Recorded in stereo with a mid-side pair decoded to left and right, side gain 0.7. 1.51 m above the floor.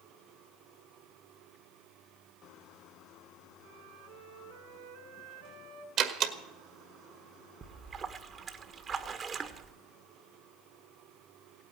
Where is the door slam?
50° right, 1.7 m.